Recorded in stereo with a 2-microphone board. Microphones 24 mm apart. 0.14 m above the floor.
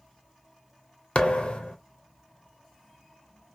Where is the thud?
50° left (ahead or behind), 0.6 m.